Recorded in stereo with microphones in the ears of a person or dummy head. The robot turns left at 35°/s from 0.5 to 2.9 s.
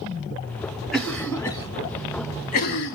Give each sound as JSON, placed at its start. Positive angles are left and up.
{"t": 0.9, "sound": "a cough", "side_deg": 5, "distance_m": 1.0}